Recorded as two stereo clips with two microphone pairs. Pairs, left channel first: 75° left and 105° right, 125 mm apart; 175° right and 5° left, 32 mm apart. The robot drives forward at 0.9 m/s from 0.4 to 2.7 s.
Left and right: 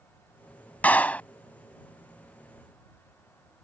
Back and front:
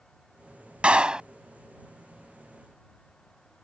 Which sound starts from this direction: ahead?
A clap, at 0.8 s.